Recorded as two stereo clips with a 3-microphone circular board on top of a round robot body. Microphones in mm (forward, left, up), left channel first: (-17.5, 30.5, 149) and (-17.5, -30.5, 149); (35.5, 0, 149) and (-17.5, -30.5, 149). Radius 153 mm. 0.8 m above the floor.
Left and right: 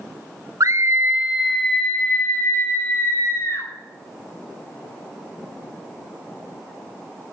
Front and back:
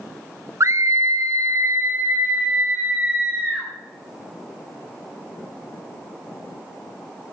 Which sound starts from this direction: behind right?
A scream, at 0.6 s.